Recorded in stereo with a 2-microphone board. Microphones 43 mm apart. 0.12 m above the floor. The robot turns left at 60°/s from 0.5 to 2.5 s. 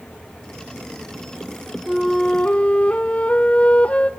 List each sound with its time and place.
1.9 s a flute: 175° right, 1.0 m; by 4.1 s 150° left, 1.0 m